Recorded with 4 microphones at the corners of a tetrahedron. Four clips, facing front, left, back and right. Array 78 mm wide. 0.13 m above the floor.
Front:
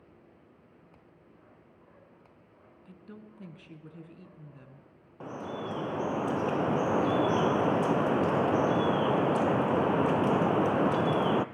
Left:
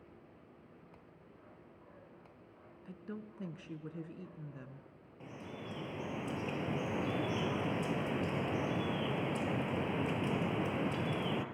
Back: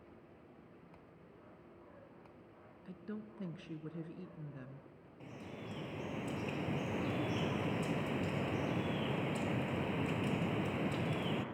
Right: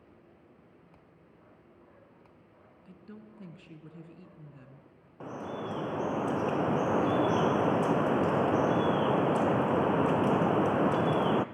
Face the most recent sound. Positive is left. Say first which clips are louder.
# right 10 dB, front 12 dB
turn(degrees=-40)